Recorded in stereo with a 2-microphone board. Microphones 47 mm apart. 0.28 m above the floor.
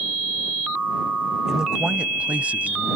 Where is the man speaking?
10° right (ahead or behind); by 2.9 s 35° right (ahead or behind).